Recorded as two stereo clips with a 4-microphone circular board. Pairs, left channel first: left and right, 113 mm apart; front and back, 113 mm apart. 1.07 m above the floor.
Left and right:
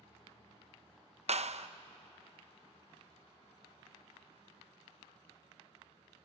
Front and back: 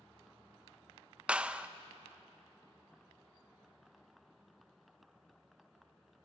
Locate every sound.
1.3 s a clap: 100° right, 0.7 m